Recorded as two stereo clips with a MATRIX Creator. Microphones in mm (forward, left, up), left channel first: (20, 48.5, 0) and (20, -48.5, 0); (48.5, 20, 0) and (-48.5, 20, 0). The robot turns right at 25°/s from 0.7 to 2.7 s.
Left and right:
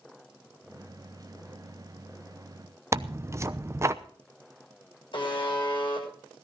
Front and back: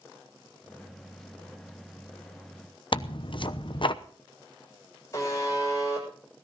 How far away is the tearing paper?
About 0.8 m.